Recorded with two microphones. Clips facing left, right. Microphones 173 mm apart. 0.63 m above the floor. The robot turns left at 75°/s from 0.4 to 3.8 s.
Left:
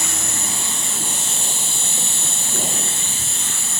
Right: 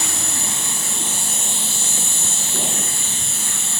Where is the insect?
145° right, 2 m; by 3.8 s 40° right, 2 m.